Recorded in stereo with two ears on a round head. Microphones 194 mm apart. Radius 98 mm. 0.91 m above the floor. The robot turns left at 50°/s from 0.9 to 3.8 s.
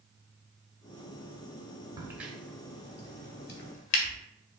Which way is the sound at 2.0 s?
15° right (ahead or behind).